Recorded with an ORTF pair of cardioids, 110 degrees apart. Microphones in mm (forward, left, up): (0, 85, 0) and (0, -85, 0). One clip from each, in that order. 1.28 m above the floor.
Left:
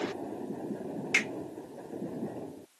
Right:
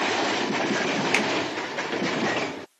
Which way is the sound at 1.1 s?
45° right.